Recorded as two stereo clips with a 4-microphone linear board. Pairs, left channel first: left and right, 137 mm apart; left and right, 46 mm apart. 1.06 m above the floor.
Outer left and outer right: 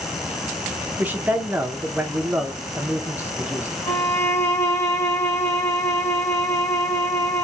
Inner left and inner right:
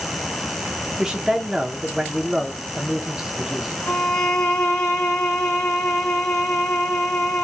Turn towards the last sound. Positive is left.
turn(degrees=20)  # may be behind; listen again after turning